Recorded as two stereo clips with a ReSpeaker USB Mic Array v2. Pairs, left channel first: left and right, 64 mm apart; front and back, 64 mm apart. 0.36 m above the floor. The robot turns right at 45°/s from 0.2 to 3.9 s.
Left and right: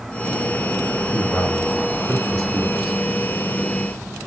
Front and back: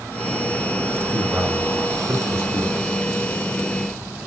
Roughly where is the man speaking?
Left.